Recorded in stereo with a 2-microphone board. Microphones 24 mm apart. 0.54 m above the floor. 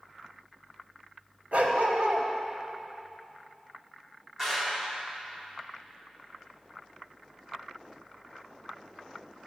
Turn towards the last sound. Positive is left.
turn(degrees=-20)  # may be behind; listen again after turning